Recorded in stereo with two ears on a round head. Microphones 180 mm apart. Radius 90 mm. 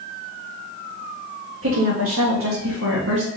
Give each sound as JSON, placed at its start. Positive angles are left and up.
{"t": 1.6, "sound": "a woman speaking", "side_deg": -70, "distance_m": 1.6}